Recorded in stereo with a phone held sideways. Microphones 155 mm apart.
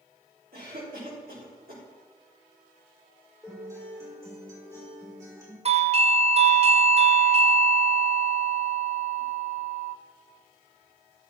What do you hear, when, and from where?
0.5 s a cough: 85° right, 4.5 m
3.4 s a guitar: 20° right (ahead or behind), 5 m
5.7 s a doorbell: 45° right (ahead or behind), 0.6 m